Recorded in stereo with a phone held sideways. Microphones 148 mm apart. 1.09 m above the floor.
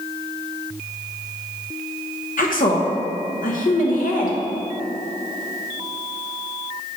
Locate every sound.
2.4 s a woman speaking: 65° left (ahead or behind), 0.9 m